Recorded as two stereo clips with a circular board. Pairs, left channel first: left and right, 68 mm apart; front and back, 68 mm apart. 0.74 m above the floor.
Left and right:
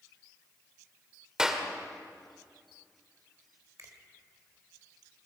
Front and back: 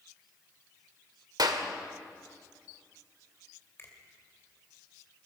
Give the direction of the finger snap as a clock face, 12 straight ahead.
2 o'clock.